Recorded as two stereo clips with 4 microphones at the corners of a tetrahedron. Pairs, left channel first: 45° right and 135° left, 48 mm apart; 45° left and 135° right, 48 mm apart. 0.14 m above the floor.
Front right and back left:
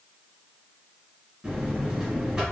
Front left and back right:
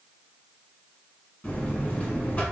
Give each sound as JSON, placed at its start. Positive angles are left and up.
{"t": 1.4, "sound": "a buzzer", "azimuth_deg": 80, "distance_m": 1.7}